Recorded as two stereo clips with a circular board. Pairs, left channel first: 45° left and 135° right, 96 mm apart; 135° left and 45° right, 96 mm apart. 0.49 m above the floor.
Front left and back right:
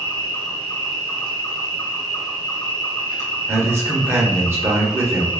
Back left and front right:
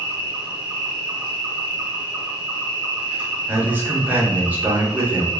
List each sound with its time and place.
0.0 s an insect: 20° left, 1.2 m
3.5 s a man speaking: 100° right, 0.8 m